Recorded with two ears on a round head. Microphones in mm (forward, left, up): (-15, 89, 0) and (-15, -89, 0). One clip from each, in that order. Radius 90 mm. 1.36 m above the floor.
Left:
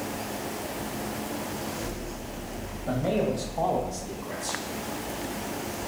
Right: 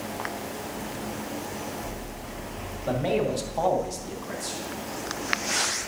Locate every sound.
2.9 s a man speaking: 65° right (ahead or behind), 1.8 m; by 4.6 s 30° right (ahead or behind), 1.4 m